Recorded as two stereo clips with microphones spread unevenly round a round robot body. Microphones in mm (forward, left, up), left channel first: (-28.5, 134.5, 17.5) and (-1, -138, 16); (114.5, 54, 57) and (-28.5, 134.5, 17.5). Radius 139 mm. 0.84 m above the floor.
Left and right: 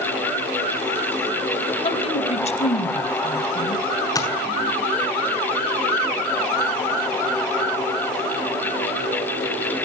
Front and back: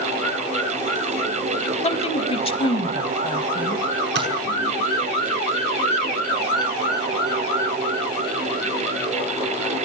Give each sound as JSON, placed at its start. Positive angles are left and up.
{"t": 1.8, "sound": "a woman speaking", "azimuth_deg": 25, "distance_m": 3.5}
{"t": 4.2, "sound": "tapping", "azimuth_deg": 175, "distance_m": 6.5}